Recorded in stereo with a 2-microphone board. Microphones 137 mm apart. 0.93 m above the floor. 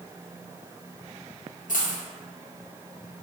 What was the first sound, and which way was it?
A dropped coin, 75° left (ahead or behind).